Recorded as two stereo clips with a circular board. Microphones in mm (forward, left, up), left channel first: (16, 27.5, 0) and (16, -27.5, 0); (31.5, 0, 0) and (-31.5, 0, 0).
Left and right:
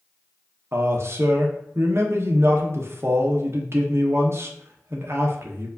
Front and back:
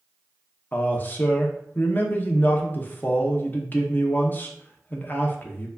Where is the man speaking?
55° right, 0.7 m.